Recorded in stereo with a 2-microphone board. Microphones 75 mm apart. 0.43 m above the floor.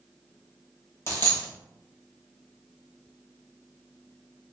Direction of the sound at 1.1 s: 30° left (ahead or behind).